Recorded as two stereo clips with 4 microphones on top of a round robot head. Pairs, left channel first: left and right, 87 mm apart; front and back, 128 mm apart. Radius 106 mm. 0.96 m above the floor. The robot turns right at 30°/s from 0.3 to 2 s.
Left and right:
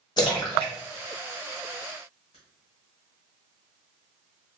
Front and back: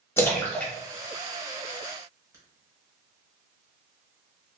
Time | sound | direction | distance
0.2 | a splash | 70° left | 1.0 m